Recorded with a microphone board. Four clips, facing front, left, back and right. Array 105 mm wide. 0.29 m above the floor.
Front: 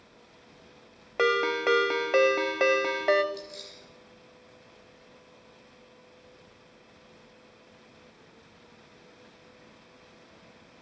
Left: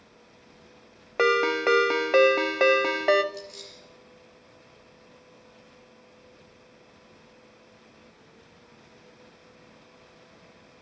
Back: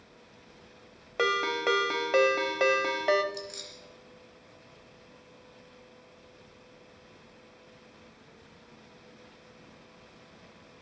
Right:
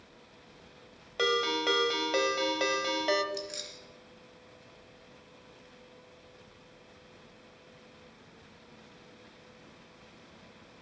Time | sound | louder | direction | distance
1.2 | a ringtone | left 7 dB, front 3 dB | 75° left | 0.7 m
3.3 | keys jangling | right 1 dB, even | 110° right | 2.5 m